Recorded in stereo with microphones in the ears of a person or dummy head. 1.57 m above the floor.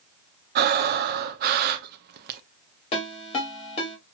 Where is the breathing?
55° right (ahead or behind), 0.7 m.